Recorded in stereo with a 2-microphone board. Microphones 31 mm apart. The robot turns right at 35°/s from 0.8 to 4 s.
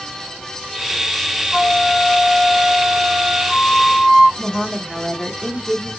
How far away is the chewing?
No chewing in this recording.